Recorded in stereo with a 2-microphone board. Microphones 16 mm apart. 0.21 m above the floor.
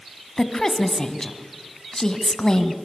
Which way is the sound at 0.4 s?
35° left (ahead or behind).